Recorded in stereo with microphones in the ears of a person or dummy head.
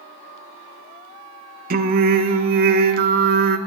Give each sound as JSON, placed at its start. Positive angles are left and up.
{"t": 1.7, "sound": "singing", "side_deg": -45, "distance_m": 0.8}